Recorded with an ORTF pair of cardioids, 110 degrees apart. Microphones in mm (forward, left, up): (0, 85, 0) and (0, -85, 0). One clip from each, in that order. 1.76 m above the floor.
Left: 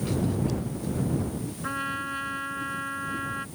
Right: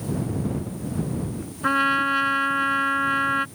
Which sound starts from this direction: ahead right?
A trumpet, at 1.6 s.